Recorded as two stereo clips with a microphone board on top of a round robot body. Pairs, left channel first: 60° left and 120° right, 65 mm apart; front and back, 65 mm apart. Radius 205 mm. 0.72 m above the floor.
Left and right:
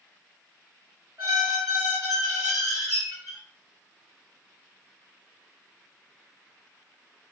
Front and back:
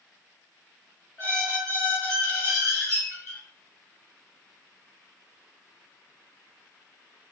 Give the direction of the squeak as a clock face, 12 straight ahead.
12 o'clock.